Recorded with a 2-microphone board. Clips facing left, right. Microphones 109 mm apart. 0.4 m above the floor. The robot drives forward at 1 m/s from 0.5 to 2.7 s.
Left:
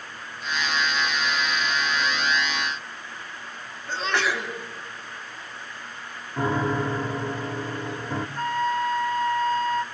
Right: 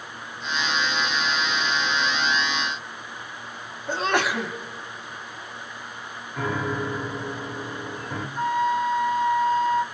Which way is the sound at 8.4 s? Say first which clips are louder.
Right 3 dB; 20° right (ahead or behind).